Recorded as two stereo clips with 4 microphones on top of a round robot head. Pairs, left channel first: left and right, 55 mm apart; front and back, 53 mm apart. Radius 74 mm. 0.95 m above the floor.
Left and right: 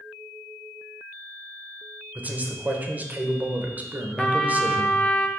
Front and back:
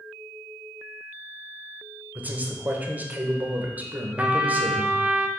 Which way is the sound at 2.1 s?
135° right.